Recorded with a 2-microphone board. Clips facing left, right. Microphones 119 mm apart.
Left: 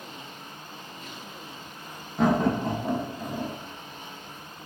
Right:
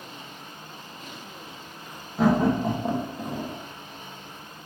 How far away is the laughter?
About 1.4 m.